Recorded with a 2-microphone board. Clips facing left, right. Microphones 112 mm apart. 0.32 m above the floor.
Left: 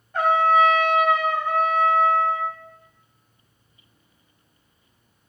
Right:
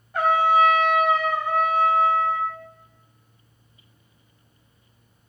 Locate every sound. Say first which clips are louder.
0.1 s a trumpet: left 1 dB; 10° right (ahead or behind), 1.6 m